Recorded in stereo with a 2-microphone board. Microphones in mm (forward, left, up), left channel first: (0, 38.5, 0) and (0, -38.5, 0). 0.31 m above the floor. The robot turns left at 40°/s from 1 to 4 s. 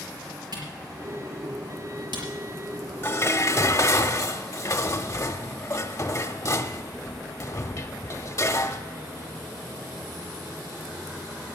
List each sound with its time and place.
0.5 s a camera shutter: 65° right (ahead or behind), 5 m; by 4.0 s 5° left (ahead or behind), 5 m
3.0 s dishes clattering: 130° left, 0.7 m; by 8.8 s 95° left, 0.7 m